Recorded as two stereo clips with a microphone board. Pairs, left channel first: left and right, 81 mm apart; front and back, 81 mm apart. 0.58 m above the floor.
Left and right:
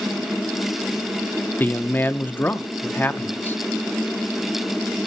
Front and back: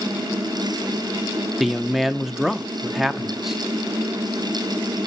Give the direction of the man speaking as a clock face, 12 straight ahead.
9 o'clock.